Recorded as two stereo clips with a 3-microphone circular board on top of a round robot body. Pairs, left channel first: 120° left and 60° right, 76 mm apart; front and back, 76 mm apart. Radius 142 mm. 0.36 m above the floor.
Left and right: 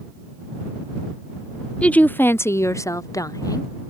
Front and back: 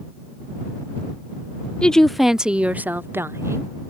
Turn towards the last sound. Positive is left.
turn(degrees=140)